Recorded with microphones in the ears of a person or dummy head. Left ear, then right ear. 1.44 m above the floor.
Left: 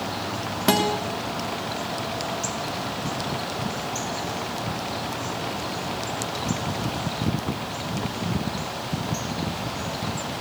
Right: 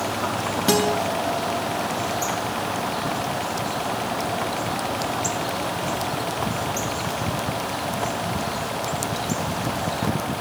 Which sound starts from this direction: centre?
A guitar, at 0.7 s.